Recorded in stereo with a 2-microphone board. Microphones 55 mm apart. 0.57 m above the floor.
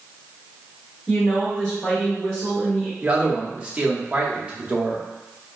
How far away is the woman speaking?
About 1.2 m.